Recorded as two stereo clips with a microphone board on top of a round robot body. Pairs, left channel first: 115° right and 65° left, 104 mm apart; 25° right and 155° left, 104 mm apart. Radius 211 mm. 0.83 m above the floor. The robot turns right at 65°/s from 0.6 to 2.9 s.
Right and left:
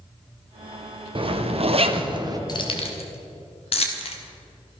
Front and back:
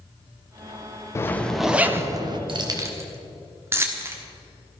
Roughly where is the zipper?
Ahead left.